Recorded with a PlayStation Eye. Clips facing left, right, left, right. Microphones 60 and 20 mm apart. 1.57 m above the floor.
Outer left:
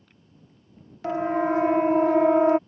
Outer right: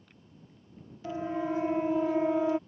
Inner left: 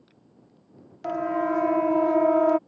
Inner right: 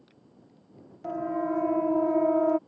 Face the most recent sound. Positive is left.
turn(degrees=60)  # may be behind; listen again after turning